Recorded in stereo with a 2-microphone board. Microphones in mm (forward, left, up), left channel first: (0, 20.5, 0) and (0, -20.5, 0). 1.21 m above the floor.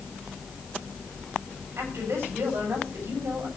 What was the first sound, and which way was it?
A woman speaking, 75° right (ahead or behind).